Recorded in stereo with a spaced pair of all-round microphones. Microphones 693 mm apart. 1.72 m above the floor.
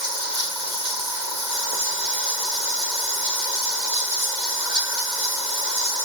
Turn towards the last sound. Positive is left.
turn(degrees=-80)